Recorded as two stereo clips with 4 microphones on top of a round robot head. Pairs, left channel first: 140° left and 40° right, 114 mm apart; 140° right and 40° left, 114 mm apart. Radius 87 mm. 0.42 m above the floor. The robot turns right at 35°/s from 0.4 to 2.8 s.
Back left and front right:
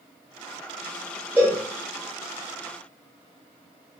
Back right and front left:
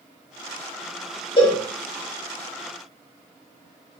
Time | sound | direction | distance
1.4 | a cowbell | 115° right | 1.5 m